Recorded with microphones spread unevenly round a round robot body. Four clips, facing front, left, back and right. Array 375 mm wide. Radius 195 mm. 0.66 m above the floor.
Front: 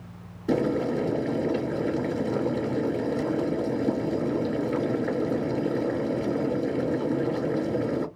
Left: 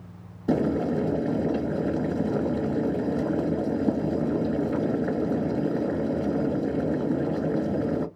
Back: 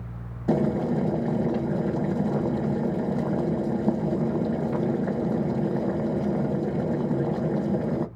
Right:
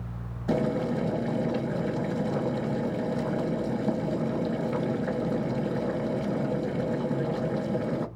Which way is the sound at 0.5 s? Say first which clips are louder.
Left 3 dB, back 1 dB; 150° left.